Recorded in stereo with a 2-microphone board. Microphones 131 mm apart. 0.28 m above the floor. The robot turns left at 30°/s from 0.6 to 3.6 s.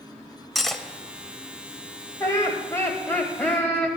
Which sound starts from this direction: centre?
Cutlery clinking, at 0.6 s.